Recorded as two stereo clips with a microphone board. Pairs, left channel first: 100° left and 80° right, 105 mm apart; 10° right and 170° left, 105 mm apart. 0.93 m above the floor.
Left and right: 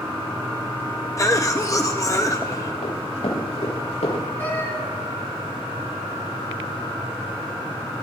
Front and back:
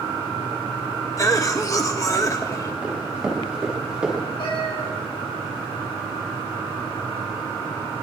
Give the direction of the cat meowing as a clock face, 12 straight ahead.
11 o'clock.